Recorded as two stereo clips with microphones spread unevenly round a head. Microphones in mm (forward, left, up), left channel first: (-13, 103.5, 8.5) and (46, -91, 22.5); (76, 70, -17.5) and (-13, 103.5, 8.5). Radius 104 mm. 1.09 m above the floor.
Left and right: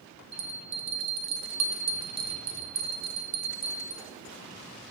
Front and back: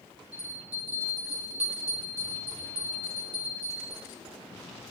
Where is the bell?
135° right, 0.9 m.